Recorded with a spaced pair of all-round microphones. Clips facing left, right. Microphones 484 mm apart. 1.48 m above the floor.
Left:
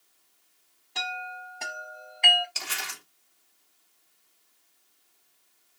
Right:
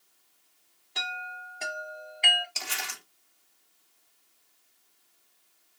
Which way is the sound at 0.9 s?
15° left (ahead or behind).